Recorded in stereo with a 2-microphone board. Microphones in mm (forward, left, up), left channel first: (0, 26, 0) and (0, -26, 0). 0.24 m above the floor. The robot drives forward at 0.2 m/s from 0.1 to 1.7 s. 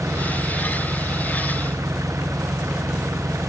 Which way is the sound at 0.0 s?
75° right (ahead or behind).